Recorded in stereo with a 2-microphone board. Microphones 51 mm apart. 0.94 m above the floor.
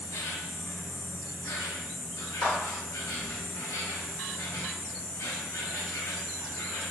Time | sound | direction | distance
0.0 | an insect | 75° left (ahead or behind) | 0.7 m
2.4 | a clap | 70° left (ahead or behind) | 1.7 m